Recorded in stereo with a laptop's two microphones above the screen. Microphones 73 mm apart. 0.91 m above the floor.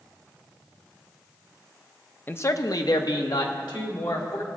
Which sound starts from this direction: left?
A man speaking, at 2.3 s.